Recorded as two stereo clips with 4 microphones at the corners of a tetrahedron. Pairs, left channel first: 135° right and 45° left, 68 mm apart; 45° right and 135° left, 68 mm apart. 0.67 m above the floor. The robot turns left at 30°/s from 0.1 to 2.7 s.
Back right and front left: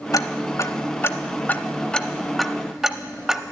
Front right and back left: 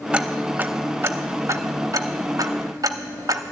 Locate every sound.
0.1 s ticking: 155° right, 0.6 m; by 3.5 s 130° left, 0.6 m